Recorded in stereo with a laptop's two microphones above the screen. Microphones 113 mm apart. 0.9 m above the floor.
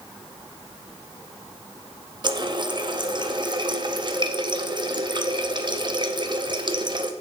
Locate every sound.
2.2 s a running tap: 40° right (ahead or behind), 0.8 m